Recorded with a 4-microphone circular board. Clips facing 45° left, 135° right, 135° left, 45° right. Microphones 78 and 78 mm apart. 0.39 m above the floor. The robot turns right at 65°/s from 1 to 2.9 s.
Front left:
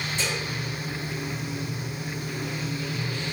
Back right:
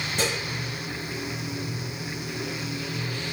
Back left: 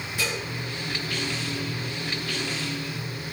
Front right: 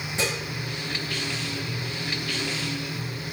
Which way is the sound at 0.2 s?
110° right.